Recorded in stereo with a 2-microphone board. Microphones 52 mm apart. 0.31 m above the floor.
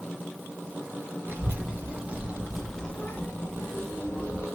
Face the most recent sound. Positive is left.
turn(degrees=60)  # may be behind; listen again after turning